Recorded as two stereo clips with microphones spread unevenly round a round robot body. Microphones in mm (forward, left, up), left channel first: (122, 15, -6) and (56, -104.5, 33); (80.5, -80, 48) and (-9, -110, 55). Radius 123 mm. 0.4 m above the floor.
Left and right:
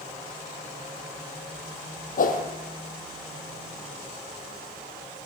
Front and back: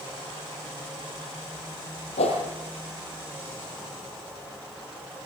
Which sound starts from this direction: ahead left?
A whoosh, at 2.2 s.